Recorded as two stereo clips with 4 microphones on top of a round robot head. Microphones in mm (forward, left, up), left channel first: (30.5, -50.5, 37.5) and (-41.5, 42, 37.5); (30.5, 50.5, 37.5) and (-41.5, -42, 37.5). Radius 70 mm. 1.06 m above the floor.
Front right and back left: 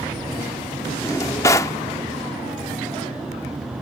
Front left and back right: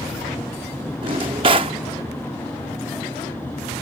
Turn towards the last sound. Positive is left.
turn(degrees=-105)